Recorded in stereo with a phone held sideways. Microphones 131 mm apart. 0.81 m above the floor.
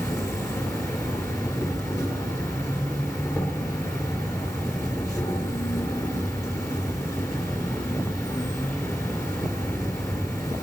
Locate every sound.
0.0 s an insect: 25° left (ahead or behind), 3.5 m